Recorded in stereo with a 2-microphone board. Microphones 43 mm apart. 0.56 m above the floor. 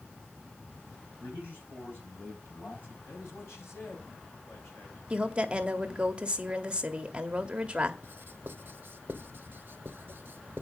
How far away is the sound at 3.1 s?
About 4 m.